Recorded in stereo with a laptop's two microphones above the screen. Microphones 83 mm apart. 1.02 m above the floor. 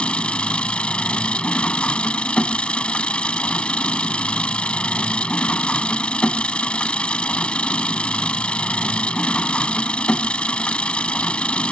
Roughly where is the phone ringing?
I don't hear a phone ringing.